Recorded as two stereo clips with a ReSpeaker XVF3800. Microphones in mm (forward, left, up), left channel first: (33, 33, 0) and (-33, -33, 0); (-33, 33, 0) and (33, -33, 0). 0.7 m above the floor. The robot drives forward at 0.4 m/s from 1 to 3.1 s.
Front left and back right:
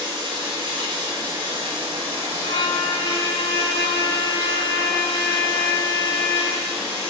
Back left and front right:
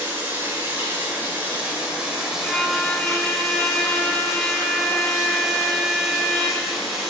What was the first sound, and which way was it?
Running water, 110° right.